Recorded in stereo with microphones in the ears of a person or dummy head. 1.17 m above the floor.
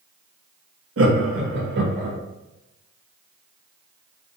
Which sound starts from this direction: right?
Laughter, at 1.0 s.